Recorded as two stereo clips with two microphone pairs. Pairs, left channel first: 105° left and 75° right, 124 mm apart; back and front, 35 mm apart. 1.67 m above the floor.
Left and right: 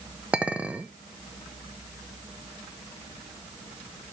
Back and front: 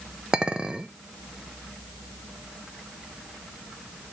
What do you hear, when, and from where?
0.3 s a clink: straight ahead, 0.6 m